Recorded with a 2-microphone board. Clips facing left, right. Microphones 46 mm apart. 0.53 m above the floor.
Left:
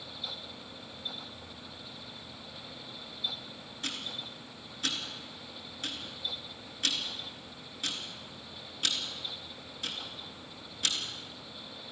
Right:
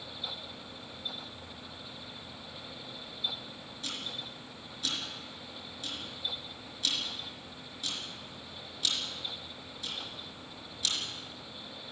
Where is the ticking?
50° left (ahead or behind), 4 m.